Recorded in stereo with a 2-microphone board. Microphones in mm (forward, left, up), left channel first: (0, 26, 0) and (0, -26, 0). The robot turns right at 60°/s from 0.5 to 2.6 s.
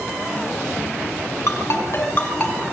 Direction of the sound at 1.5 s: 85° left.